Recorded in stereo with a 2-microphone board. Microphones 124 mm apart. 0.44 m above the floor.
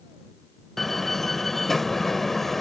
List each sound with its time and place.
0.8 s a door slam: centre (ahead or behind)